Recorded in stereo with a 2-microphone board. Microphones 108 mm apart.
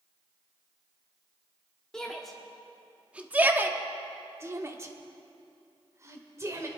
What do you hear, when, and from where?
1.9 s a shout: 5° left (ahead or behind), 1.1 m; by 6.7 s 30° right (ahead or behind), 2 m